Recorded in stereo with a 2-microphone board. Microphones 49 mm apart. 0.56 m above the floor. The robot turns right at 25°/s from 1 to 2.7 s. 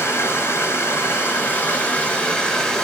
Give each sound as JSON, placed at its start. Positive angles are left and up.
{"t": 0.0, "sound": "running water", "azimuth_deg": 125, "distance_m": 3.5}